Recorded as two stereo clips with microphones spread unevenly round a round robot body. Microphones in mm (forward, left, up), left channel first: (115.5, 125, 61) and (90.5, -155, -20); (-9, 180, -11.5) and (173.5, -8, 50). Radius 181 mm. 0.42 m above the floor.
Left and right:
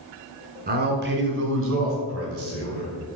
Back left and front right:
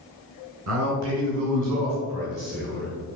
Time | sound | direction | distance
0.7 | a man speaking | 80° right | 1.7 m